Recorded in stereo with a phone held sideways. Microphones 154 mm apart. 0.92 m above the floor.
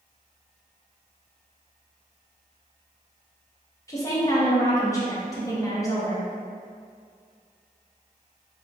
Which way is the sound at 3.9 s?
20° left (ahead or behind).